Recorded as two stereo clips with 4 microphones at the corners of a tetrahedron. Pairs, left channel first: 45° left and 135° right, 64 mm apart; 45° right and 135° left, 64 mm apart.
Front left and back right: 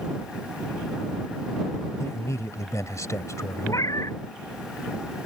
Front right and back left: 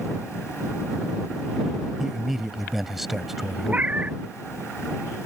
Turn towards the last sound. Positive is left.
turn(degrees=70)